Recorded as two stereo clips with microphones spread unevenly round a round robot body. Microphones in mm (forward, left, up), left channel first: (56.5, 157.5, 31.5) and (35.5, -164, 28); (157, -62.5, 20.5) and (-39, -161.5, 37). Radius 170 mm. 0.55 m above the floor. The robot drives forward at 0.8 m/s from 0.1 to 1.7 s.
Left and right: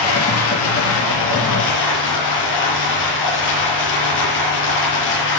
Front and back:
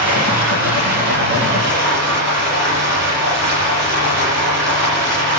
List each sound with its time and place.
0.0 s running water: 140° left, 6.5 m; by 5.4 s 145° left, 7.5 m